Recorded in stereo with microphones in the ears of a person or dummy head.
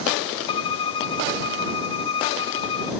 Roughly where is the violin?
Left.